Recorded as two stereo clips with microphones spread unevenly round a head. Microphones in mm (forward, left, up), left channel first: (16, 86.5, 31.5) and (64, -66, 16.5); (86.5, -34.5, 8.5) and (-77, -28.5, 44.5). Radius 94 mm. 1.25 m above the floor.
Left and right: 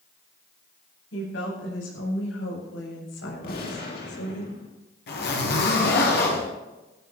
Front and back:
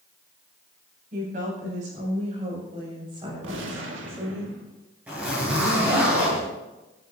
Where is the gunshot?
150° left, 3 m.